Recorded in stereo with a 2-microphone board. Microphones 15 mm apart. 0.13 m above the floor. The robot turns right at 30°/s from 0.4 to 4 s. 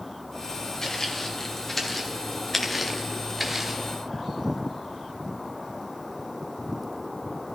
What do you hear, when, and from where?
0.8 s footsteps: 45° left (ahead or behind), 3.5 m; by 3.8 s 10° right (ahead or behind), 2.5 m